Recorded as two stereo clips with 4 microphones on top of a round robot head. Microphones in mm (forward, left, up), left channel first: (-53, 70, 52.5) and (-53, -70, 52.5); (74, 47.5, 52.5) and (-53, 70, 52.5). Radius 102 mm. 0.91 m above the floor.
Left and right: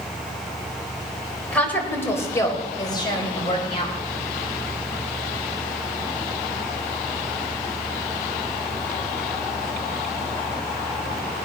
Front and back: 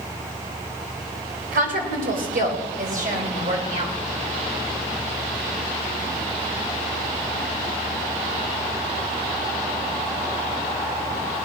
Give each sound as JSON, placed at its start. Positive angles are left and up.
{"t": 1.5, "sound": "a woman speaking", "azimuth_deg": 170, "distance_m": 4.0}